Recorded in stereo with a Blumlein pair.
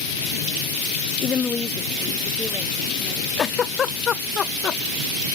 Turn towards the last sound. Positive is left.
turn(degrees=20)